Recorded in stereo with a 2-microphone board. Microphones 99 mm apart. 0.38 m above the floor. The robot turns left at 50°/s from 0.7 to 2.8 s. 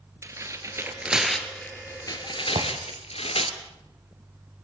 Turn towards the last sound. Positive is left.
turn(degrees=-85)